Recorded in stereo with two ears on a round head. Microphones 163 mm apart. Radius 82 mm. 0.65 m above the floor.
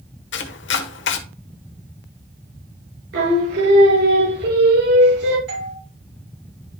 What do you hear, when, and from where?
0.3 s chopping: 70° left (ahead or behind), 1.2 m
3.1 s singing: 60° right (ahead or behind), 4.5 m
5.5 s a doorbell: 60° right (ahead or behind), 5 m